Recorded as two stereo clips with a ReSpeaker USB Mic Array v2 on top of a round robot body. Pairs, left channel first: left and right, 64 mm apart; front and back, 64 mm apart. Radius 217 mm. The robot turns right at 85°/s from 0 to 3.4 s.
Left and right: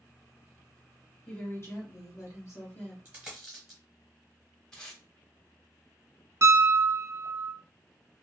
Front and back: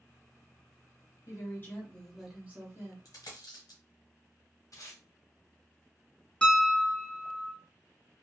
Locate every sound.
1.3 s a woman speaking: 20° left, 1.6 m; by 3.0 s 160° left, 1.6 m
3.0 s a dropped coin: 30° right, 1.2 m; by 3.8 s straight ahead, 1.2 m
4.7 s tape being pulled: 10° left, 1.2 m
6.4 s a piano: 70° right, 1.8 m